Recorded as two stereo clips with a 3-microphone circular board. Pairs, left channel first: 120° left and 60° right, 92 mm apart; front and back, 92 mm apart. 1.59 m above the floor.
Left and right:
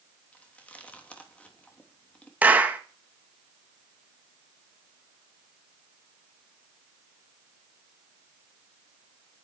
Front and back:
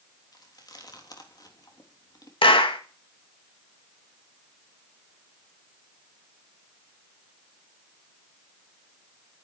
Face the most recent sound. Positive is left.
turn(degrees=10)